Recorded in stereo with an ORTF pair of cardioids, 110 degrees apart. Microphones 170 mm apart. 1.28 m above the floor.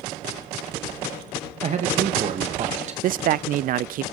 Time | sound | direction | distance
1.6 | a man speaking | 45° right | 1.9 m
3.0 | a man speaking | 60° right | 0.5 m